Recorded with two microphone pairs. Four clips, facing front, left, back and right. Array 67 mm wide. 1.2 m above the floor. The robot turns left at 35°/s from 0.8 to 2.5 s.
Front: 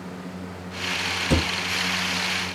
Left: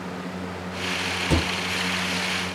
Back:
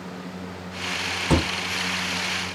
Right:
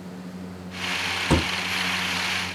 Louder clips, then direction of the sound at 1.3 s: Right 2 dB, back 2 dB; 150° right.